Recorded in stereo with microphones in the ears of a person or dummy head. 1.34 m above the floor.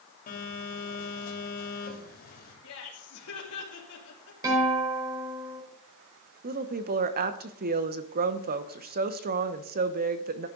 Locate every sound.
0.3 s a phone buzzing: 40° left (ahead or behind), 3.5 m
2.6 s laughter: 80° left, 3 m
4.4 s a guitar: 15° right (ahead or behind), 5 m
6.4 s a woman speaking: 55° right (ahead or behind), 1.0 m